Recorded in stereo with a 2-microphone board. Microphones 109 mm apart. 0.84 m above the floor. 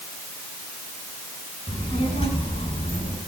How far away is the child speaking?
About 6.5 m.